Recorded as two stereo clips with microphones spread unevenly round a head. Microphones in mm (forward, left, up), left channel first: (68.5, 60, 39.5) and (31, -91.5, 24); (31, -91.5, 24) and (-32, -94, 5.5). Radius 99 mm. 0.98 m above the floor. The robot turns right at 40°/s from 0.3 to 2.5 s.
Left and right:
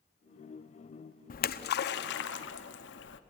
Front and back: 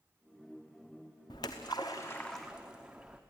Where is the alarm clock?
No alarm clock in this recording.